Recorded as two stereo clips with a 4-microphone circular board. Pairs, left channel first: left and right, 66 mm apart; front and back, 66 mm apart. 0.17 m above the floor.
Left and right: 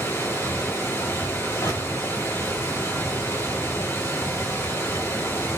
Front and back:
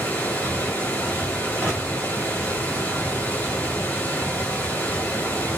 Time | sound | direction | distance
0.0 | running water | 60° left | 2.5 m
1.6 | crushing | 80° left | 3 m